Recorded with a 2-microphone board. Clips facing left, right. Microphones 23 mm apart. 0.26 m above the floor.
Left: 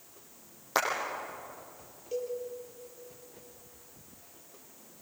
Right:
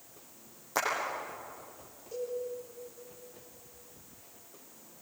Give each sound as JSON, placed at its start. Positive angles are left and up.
{"t": 0.8, "sound": "a clap", "side_deg": 50, "distance_m": 9.5}
{"t": 2.1, "sound": "a cowbell", "side_deg": 40, "distance_m": 6.5}